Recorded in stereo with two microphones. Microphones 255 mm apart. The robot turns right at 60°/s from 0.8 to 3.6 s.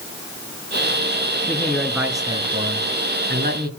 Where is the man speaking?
160° left, 1.6 m; by 3.7 s 70° right, 1.6 m.